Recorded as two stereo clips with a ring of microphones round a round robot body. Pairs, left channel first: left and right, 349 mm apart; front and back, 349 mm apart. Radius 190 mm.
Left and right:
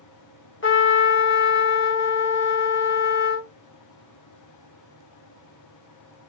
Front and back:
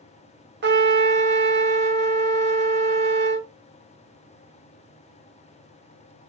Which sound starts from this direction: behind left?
A trumpet, at 0.6 s.